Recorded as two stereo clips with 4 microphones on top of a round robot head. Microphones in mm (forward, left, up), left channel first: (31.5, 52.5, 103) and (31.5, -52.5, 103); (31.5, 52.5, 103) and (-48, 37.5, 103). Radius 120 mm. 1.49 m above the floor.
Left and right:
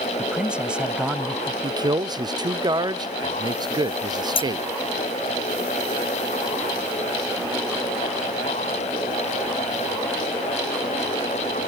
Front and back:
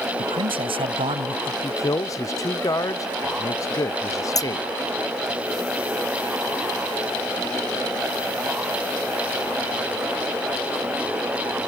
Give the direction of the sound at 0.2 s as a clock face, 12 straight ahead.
6 o'clock.